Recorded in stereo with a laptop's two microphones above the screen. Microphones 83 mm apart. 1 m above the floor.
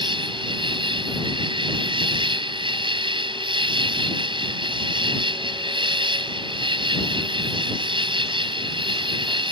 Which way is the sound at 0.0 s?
85° right.